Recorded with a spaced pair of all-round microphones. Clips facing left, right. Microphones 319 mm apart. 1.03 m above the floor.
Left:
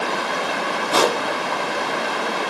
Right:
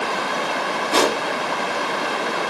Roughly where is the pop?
Right.